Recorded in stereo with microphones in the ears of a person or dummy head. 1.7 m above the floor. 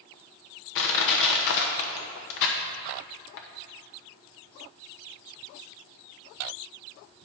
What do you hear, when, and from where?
0.8 s crushing: 65° left (ahead or behind), 1.0 m